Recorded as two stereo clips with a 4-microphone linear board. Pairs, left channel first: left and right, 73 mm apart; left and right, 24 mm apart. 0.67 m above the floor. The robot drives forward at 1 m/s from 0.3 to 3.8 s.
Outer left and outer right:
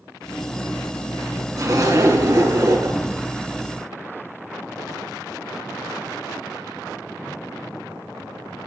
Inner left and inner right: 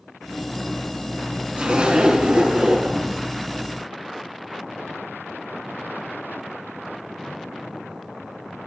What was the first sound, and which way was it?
A zipper, 50° right (ahead or behind).